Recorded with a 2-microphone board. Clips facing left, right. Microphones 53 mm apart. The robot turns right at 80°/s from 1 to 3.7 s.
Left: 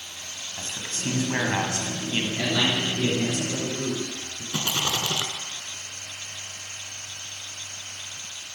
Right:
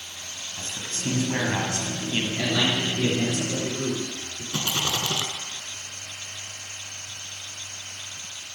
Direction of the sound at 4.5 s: 15° left (ahead or behind).